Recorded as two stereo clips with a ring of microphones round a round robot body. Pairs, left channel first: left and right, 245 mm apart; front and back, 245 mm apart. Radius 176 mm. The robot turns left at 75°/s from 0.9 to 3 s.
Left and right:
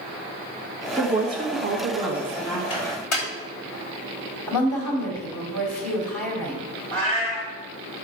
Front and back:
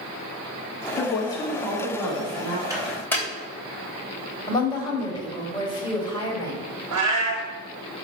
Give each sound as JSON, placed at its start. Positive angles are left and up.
{"t": 1.0, "sound": "a woman speaking", "azimuth_deg": -40, "distance_m": 1.3}
{"t": 2.7, "sound": "a microwave", "azimuth_deg": 105, "distance_m": 3.0}
{"t": 4.5, "sound": "a woman speaking", "azimuth_deg": 75, "distance_m": 3.5}
{"t": 6.9, "sound": "a cat meowing", "azimuth_deg": 175, "distance_m": 1.9}